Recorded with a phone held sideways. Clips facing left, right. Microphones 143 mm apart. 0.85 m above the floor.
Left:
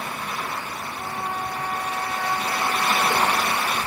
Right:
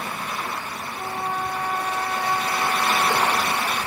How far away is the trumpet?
About 5.5 m.